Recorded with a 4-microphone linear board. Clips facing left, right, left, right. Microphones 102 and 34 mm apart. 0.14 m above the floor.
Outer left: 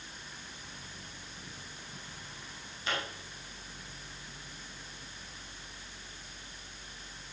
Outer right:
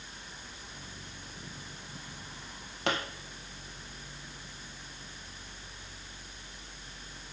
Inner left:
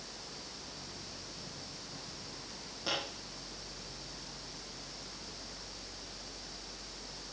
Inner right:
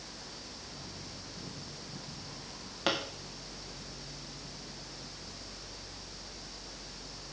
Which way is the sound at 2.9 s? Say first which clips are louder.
Outer right 4 dB, inner right 4 dB; 70° right (ahead or behind).